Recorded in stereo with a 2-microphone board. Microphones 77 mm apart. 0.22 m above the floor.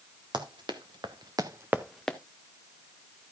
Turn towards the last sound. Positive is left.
turn(degrees=15)  # may be behind; listen again after turning